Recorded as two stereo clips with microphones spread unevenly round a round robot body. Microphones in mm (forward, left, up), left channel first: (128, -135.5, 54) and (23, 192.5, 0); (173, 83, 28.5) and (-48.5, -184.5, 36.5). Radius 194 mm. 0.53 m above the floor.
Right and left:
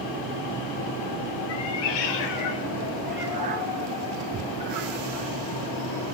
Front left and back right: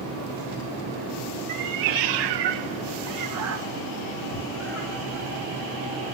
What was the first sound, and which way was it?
A cat meowing, 95° right.